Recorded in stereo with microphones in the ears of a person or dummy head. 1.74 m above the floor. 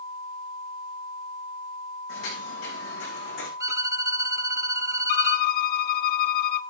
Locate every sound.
2.1 s footsteps: 75° left (ahead or behind), 8 m; by 3.5 s 70° left (ahead or behind), 8 m
3.6 s a violin: 15° right (ahead or behind), 0.9 m
5.1 s a violin: 50° left (ahead or behind), 0.7 m